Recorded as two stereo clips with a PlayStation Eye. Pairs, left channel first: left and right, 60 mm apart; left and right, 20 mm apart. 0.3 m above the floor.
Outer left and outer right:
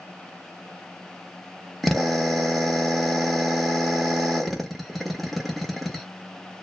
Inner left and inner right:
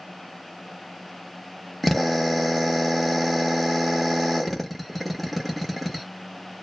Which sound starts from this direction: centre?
A drill, at 1.8 s.